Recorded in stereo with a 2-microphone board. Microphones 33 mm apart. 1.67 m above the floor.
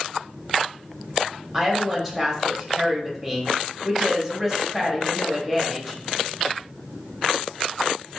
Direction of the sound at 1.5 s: 5° left (ahead or behind).